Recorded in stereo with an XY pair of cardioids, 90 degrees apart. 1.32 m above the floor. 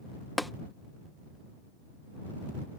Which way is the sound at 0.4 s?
10° left.